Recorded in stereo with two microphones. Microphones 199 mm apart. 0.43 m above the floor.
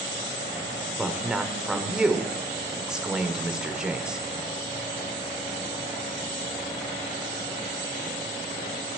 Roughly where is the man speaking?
Centre.